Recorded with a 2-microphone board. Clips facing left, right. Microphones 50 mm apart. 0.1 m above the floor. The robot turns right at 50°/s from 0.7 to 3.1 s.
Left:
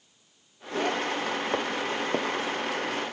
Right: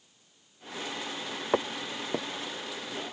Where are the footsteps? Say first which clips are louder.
Left 2 dB; 15° right (ahead or behind); by 2.3 s 20° left (ahead or behind).